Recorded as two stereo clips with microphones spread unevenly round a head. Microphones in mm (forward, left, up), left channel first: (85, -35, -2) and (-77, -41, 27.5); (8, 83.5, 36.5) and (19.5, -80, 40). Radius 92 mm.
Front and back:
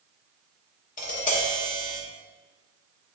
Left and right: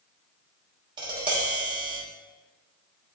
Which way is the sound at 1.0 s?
30° right.